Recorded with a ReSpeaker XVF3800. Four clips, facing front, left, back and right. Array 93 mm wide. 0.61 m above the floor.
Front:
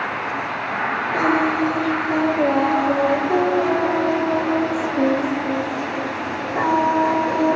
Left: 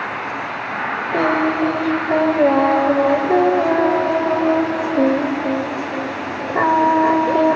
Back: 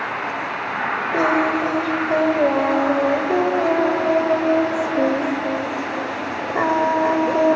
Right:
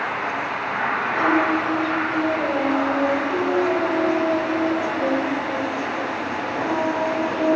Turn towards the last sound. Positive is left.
turn(degrees=115)